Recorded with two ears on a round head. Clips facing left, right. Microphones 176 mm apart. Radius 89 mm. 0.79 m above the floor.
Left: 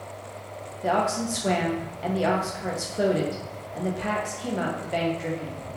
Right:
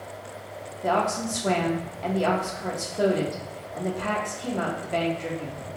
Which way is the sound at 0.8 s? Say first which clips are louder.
Even; 5° left (ahead or behind).